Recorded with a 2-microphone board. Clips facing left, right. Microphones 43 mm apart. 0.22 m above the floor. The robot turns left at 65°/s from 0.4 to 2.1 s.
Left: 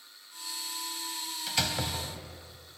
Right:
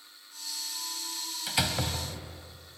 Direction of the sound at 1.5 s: 15° right (ahead or behind).